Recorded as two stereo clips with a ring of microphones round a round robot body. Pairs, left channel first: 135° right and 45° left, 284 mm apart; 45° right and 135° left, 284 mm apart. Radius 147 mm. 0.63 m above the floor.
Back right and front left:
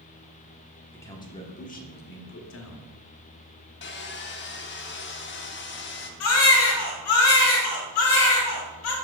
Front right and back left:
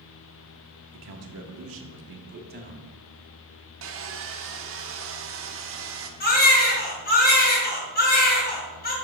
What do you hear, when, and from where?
0.9 s a man speaking: 145° left, 1.1 m; by 2.9 s 165° right, 1.4 m
3.8 s sawing: 175° left, 0.9 m
6.2 s a baby crying: 100° right, 2.5 m